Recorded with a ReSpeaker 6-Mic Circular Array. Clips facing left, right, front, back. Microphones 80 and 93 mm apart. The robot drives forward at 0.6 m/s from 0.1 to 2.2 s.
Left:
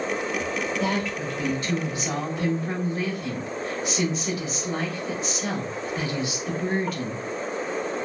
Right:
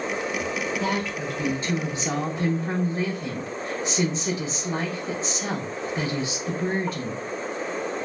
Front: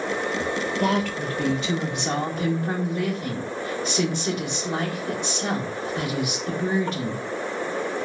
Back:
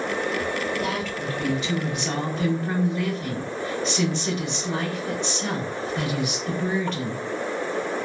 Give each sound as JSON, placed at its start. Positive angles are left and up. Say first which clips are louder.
{"t": 0.8, "sound": "a woman speaking", "louder": "even, front 4 dB", "azimuth_deg": -15, "distance_m": 1.2}